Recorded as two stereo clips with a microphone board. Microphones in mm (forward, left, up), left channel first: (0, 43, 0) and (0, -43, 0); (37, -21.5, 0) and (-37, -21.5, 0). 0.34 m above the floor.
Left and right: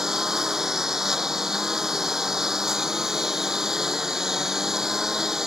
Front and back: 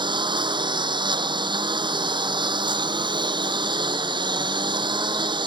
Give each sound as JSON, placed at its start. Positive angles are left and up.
{"t": 0.0, "sound": "a lawn mower", "azimuth_deg": -175}